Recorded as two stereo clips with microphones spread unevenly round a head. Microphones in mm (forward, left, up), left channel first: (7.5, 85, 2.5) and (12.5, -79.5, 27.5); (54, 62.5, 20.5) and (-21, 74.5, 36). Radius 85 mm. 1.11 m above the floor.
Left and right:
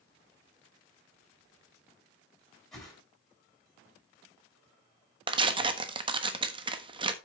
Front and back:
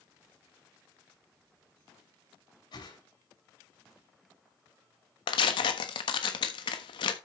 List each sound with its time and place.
2.7 s a whoosh: 5° left, 8 m
5.3 s tearing paper: 25° right, 1.2 m